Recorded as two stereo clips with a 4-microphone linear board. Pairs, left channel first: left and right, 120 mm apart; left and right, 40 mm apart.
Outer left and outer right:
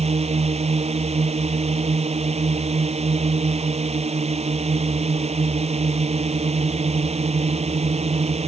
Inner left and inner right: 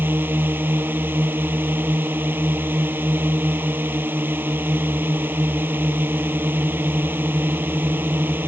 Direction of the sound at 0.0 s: 60° right (ahead or behind).